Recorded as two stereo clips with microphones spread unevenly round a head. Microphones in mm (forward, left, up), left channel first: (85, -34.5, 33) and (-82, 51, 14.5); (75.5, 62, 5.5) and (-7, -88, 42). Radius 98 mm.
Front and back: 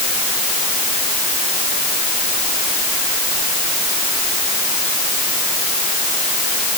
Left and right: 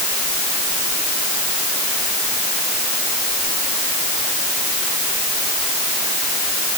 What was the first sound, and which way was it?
Only background noise.